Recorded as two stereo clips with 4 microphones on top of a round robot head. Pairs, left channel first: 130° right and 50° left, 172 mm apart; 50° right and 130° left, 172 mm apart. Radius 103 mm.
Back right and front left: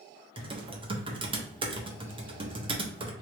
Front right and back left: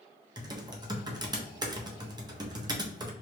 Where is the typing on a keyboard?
80° left, 1.2 m.